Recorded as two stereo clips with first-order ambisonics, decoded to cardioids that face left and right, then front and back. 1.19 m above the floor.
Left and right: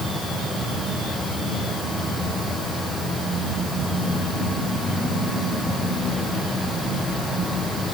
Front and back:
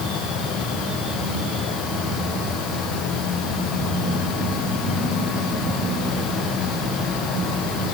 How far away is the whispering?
I don't hear whispering.